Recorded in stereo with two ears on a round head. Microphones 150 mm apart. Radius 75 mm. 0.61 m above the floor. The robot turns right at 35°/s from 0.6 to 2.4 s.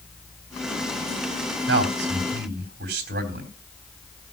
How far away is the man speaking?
About 3.5 m.